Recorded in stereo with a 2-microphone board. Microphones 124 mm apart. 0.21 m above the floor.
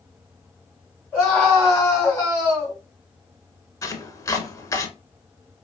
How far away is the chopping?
About 0.8 m.